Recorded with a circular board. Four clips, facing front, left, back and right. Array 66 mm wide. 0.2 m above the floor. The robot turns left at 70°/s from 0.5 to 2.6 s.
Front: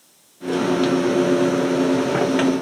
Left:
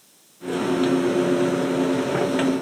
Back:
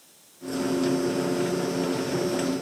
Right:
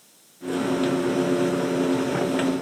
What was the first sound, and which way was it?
Only background noise.